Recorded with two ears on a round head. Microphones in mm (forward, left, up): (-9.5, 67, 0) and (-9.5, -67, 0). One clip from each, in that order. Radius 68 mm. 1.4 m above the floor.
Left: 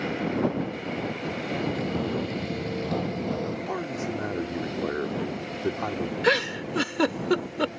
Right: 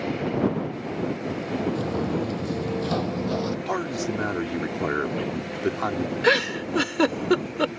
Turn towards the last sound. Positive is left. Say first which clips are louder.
# right 2 dB
turn(degrees=0)  # may be behind; listen again after turning